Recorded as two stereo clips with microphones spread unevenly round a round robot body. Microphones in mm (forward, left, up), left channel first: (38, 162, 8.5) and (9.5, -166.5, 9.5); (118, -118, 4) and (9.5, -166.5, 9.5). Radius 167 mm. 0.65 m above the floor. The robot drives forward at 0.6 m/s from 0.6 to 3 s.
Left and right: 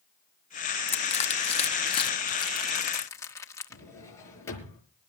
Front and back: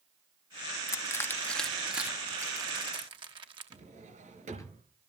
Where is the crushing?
30° left, 1.0 m; by 3.8 s 165° left, 1.2 m.